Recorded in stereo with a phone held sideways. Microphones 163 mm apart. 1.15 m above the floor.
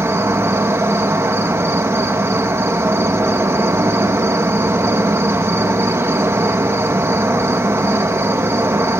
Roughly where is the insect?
Centre.